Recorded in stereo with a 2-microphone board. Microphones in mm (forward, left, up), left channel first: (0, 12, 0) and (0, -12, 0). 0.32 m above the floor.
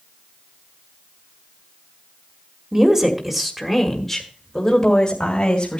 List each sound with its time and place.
2.7 s a woman speaking: 25° right (ahead or behind), 1.5 m; by 5.8 s 45° left (ahead or behind), 2 m